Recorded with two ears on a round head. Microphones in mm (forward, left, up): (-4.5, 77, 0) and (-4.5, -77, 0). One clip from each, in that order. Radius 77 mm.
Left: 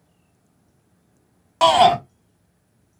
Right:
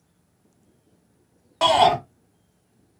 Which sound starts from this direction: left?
A shout, at 1.6 s.